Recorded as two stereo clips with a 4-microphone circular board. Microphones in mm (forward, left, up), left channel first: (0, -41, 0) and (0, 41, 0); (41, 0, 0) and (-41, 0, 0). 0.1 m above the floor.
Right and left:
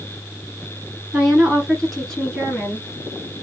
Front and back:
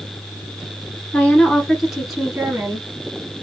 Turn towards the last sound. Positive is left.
turn(degrees=-135)